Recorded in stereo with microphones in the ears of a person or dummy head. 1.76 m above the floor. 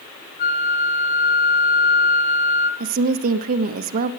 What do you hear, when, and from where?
0.4 s a flute: 40° left (ahead or behind), 1.0 m
2.8 s a woman speaking: 40° right (ahead or behind), 0.6 m